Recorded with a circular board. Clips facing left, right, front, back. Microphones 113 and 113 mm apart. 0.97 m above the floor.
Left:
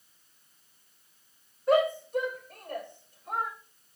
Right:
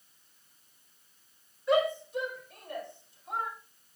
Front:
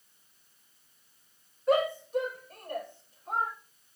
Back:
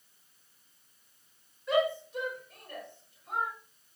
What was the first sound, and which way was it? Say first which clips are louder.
A shout: left 3 dB, front 2 dB; 45° left.